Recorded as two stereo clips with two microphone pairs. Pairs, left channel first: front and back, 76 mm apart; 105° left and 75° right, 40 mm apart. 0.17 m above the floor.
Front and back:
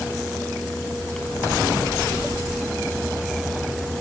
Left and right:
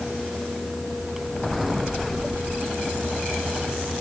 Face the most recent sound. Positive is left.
No sound to turn to.